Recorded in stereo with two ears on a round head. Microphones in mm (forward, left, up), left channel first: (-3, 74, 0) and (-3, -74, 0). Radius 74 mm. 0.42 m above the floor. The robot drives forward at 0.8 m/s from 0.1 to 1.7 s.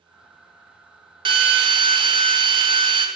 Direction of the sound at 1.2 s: 30° right (ahead or behind).